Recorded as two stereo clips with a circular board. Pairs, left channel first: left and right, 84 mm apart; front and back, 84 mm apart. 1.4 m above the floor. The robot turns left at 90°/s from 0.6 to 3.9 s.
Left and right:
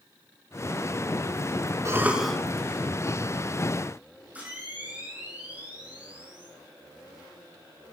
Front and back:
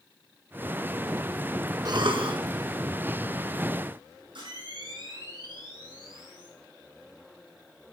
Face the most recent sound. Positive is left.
turn(degrees=-160)